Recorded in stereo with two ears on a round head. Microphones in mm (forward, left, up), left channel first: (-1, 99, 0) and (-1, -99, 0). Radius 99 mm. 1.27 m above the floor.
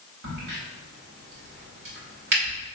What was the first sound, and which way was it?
A crack, 55° right (ahead or behind).